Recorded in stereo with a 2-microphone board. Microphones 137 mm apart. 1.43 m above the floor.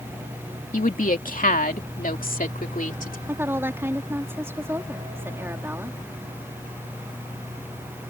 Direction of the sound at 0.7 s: 70° left (ahead or behind).